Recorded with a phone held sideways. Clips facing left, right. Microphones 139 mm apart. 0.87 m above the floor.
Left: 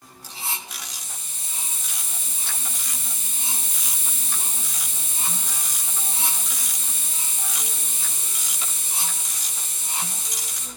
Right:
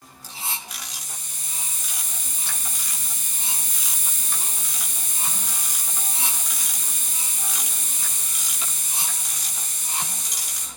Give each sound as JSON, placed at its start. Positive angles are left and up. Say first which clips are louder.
{"t": 0.7, "sound": "a hiss", "louder": "even", "side_deg": 25, "distance_m": 1.3}